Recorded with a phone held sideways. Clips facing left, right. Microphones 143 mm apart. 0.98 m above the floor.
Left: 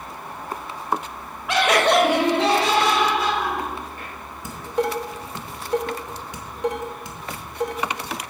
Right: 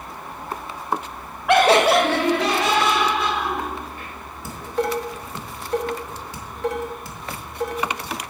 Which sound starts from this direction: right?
Laughter, at 1.5 s.